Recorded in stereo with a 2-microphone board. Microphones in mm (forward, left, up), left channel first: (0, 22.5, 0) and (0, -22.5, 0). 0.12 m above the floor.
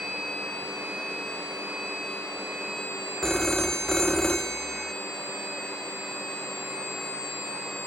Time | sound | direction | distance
3.2 | a phone ringing | 10° left (ahead or behind) | 0.7 m